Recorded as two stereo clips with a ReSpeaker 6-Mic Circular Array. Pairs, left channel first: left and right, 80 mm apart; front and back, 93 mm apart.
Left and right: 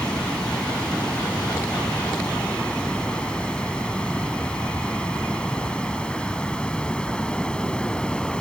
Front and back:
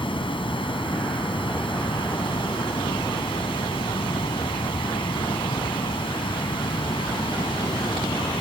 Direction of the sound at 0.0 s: 15° left.